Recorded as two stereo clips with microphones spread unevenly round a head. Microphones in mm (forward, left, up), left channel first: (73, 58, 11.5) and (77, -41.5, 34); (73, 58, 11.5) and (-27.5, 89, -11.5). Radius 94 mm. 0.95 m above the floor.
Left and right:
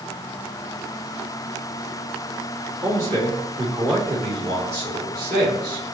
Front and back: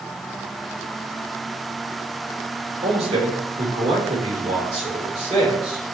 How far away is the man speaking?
About 1.8 m.